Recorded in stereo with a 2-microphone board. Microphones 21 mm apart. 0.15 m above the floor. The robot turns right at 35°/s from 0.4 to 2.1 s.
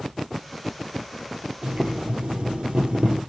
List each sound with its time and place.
1.6 s boiling: 70° right (ahead or behind), 3 m; by 3.2 s 65° right (ahead or behind), 3 m